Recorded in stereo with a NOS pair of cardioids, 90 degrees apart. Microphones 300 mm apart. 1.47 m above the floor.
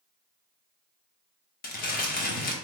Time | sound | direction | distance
1.6 | crumpling | 30° left | 1.0 m